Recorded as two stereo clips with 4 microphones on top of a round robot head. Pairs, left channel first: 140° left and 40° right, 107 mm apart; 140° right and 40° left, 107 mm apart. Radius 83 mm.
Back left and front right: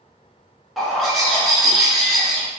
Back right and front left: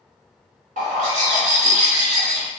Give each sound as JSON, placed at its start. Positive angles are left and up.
{"t": 0.8, "sound": "a bird", "azimuth_deg": 50, "distance_m": 1.1}